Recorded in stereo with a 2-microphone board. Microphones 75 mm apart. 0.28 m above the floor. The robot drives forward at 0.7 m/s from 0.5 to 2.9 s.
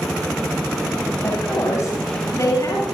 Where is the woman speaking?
45° left (ahead or behind), 8.5 m; by 2.9 s 50° left (ahead or behind), 8 m.